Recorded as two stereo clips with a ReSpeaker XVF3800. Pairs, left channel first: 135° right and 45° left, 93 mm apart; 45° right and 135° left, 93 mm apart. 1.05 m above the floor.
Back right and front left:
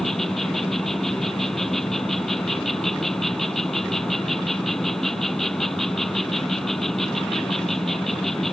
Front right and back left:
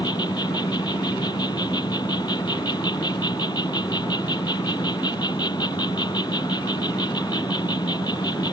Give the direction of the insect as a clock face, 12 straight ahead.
2 o'clock.